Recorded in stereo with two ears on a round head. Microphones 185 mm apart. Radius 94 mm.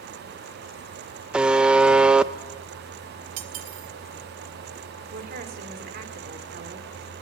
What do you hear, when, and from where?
1.3 s a buzzer: 5° right (ahead or behind), 0.6 m
3.4 s cutlery clinking: 70° right (ahead or behind), 2 m
5.1 s a woman speaking: 50° right (ahead or behind), 3 m